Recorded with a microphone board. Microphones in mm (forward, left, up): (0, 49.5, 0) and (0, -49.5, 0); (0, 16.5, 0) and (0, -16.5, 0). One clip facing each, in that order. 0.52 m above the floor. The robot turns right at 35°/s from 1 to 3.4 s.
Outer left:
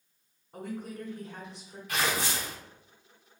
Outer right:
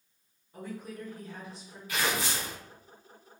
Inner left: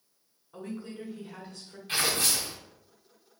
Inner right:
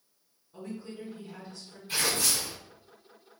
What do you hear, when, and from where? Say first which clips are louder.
0.5 s a woman speaking: outer left 2 dB, inner left 1 dB; 60° left (ahead or behind), 1.3 m
1.9 s tearing paper: outer left 1 dB, inner left 1 dB; 65° left (ahead or behind), 1.5 m; by 2.5 s 70° left (ahead or behind), 1.5 m